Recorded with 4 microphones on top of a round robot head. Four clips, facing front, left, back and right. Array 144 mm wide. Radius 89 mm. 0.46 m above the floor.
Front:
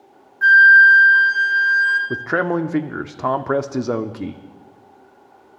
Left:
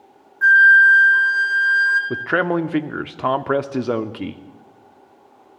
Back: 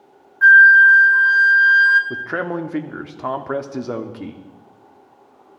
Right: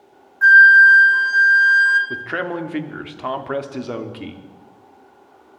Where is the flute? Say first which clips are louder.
Right 2 dB, back 1 dB; 165° right, 1.3 m.